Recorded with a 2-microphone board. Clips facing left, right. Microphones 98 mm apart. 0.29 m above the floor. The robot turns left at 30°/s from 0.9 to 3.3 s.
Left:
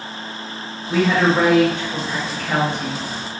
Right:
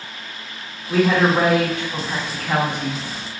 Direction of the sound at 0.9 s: 5° left (ahead or behind).